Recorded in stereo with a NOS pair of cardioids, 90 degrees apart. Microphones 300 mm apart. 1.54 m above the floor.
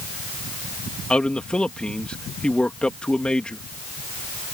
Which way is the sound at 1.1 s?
5° left.